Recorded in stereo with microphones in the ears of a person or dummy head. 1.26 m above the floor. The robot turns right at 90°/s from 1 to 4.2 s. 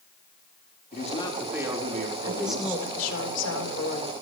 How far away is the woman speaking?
About 4.5 m.